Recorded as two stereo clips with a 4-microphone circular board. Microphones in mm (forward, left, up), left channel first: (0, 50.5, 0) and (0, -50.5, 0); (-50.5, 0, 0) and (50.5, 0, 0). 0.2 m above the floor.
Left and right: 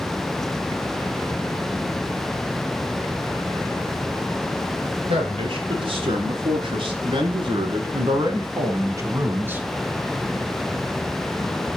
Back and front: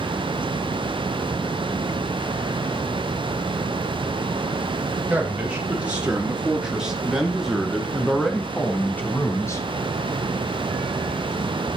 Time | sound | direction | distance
5.1 | a man speaking | 75° right | 4 m